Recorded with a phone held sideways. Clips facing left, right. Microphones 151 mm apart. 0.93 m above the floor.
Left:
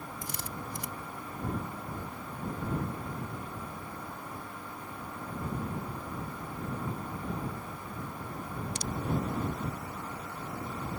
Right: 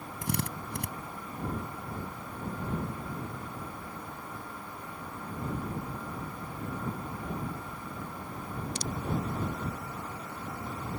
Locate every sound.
0.2 s a drill: 65° right (ahead or behind)